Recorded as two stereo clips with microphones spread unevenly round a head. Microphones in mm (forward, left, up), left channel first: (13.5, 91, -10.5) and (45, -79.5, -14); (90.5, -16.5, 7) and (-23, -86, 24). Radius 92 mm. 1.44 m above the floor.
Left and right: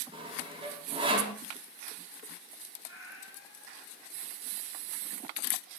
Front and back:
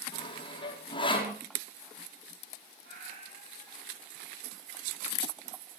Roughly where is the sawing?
Ahead.